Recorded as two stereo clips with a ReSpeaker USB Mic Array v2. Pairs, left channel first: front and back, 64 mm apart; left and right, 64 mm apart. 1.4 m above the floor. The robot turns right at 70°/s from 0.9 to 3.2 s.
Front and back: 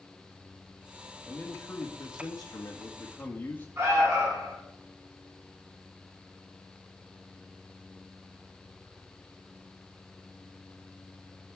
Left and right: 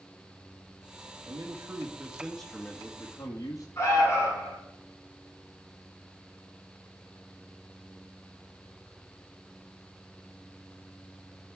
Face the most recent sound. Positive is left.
turn(degrees=135)